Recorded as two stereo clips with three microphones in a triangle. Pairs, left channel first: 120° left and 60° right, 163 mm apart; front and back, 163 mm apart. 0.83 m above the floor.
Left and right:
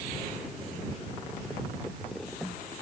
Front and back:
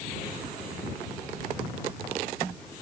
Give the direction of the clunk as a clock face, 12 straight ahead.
I don't hear a clunk.